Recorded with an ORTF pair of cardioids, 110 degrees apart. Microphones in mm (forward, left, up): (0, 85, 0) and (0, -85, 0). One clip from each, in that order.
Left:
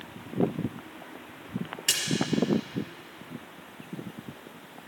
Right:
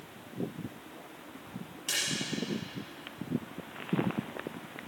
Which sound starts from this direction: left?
A splash, at 1.9 s.